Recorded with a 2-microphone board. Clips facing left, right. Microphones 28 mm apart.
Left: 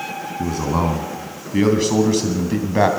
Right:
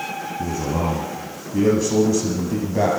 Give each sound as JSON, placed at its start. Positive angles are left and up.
{"t": 0.4, "sound": "a man speaking", "side_deg": 65, "distance_m": 2.5}